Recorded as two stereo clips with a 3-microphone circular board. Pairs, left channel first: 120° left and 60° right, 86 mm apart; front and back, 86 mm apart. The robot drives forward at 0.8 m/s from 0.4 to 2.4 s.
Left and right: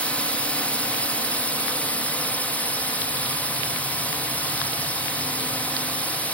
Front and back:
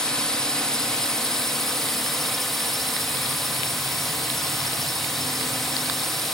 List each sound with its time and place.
0.0 s a drone: 70° left; by 6.3 s 80° left